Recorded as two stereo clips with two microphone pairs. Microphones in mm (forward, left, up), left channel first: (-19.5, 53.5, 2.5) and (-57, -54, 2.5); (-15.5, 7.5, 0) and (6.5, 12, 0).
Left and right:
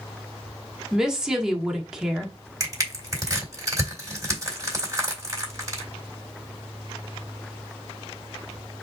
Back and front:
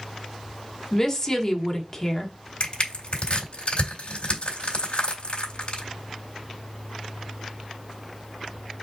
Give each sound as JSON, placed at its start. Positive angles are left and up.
{"t": 0.9, "sound": "a woman speaking", "azimuth_deg": 175, "distance_m": 1.1}
{"t": 2.6, "sound": "crushing", "azimuth_deg": -165, "distance_m": 2.5}